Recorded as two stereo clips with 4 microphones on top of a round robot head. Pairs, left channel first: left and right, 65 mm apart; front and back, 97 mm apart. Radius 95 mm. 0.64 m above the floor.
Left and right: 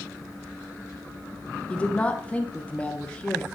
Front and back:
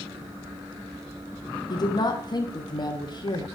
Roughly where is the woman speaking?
Ahead left.